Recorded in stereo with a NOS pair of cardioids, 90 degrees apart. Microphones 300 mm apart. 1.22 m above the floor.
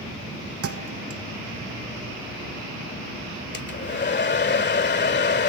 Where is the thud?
50° right.